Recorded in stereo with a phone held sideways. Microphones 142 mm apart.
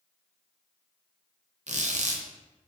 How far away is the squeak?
About 0.6 m.